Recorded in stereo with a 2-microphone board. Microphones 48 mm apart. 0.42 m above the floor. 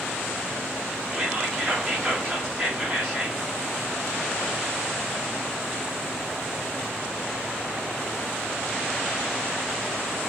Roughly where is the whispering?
Right.